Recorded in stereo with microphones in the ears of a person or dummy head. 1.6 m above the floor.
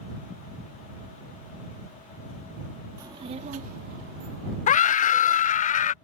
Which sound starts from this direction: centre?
A child speaking, at 3.0 s.